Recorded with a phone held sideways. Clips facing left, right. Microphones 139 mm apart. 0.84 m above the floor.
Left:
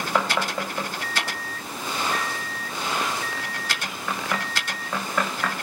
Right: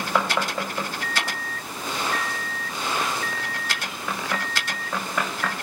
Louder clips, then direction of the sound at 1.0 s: Right 1 dB; 35° left (ahead or behind).